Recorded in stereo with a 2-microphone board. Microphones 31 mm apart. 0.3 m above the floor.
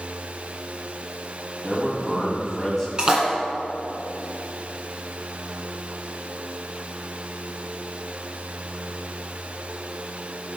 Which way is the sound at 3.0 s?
25° right (ahead or behind).